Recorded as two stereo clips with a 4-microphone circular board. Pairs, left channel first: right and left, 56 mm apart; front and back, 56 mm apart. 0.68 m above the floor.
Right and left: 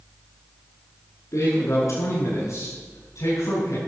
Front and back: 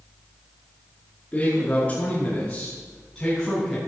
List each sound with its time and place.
1.3 s a man speaking: 65° right, 7.5 m; by 3.8 s 85° right, 5 m